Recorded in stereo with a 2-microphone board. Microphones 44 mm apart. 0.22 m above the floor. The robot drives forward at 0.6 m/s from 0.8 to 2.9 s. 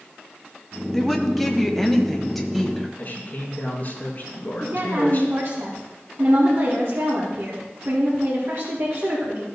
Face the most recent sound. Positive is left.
turn(degrees=-60)  # may be behind; listen again after turning